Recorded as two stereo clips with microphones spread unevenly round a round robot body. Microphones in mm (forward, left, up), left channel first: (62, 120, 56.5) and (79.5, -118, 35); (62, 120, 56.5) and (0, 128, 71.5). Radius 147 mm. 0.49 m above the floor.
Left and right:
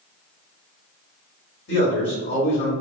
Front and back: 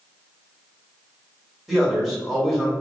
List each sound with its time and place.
1.7 s a man speaking: 75° left, 1.8 m